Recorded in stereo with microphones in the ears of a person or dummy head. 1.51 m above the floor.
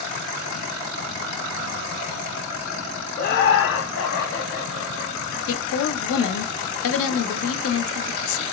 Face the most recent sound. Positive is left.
turn(degrees=65)  # may be behind; listen again after turning